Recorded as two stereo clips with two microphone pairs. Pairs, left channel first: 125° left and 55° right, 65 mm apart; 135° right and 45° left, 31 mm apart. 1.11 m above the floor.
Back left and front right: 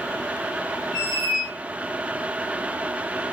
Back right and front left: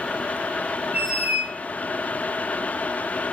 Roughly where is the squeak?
Ahead left.